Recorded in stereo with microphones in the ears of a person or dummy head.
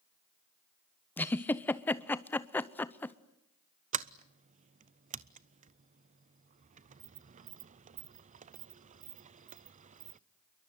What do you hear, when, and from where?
1.2 s a giggle: 10° left (ahead or behind), 0.7 m
3.9 s a sliding door: 35° right (ahead or behind), 0.5 m